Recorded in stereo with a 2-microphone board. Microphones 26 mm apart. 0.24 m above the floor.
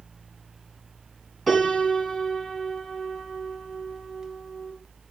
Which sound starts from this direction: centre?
A piano, at 1.5 s.